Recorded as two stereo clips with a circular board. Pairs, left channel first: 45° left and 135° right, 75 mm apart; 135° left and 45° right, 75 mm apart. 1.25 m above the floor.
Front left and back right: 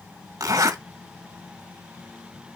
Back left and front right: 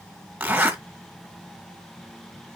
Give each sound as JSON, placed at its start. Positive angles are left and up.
{"t": 0.4, "sound": "a zipper", "azimuth_deg": -115, "distance_m": 2.0}